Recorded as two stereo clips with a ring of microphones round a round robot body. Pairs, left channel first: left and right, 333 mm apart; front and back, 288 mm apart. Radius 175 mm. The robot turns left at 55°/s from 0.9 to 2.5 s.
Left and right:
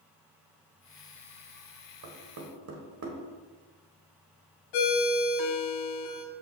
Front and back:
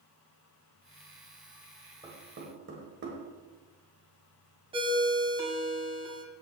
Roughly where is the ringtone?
Left.